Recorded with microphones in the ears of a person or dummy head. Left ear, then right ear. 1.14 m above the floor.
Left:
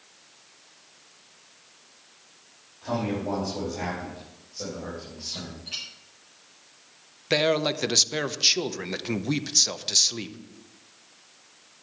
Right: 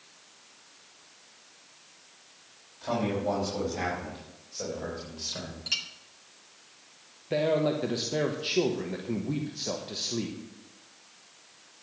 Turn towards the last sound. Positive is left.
turn(degrees=55)  # may be behind; listen again after turning